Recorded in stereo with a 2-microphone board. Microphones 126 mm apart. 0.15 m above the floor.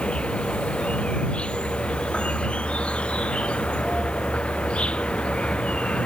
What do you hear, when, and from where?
0.0 s an insect: 10° left (ahead or behind)